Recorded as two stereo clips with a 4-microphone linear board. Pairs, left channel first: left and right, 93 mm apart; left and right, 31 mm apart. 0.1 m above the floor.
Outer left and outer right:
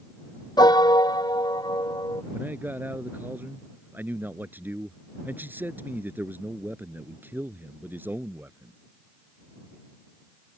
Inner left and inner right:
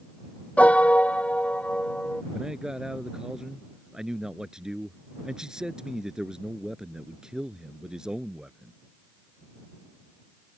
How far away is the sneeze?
I don't hear a sneeze.